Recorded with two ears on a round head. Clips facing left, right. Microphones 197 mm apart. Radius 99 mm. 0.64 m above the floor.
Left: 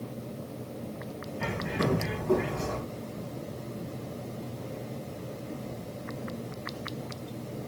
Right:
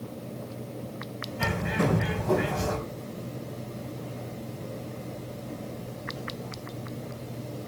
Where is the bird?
80° right, 3 m.